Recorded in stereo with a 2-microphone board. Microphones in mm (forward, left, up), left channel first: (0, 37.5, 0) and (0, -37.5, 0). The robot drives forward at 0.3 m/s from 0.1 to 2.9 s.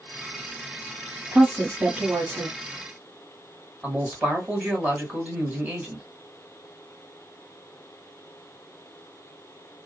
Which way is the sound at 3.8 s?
20° right (ahead or behind).